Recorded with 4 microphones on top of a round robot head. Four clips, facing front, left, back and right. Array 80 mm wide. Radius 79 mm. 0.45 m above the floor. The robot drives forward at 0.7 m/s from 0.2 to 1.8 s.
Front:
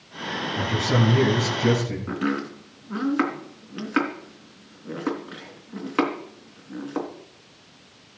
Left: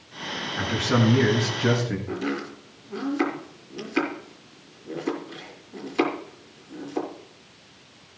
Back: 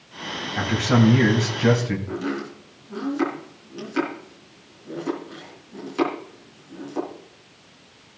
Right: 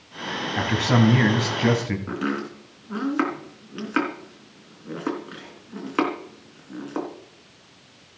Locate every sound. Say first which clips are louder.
0.6 s a man speaking: right 2 dB, back 4 dB; 110° right, 3 m; by 2.0 s 125° right, 3.5 m
2.1 s chopping: right 2 dB, front 2 dB; 45° right, 3.5 m